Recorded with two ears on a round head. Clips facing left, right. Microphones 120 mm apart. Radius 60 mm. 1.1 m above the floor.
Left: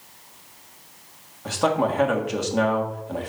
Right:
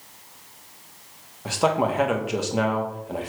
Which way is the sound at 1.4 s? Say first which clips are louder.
Even; 5° right (ahead or behind).